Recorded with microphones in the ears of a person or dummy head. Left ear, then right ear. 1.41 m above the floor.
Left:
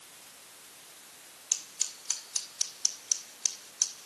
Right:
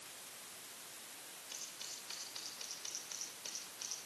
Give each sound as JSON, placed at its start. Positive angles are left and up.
{"t": 1.5, "sound": "scissors", "side_deg": 55, "distance_m": 3.0}